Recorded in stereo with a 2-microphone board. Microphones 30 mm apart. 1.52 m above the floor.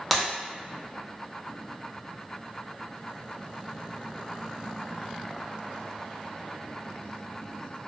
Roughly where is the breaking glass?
Centre.